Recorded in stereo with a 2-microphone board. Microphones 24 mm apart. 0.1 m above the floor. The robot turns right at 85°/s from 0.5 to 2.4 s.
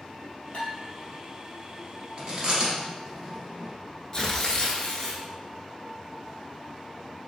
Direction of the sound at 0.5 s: 50° left (ahead or behind).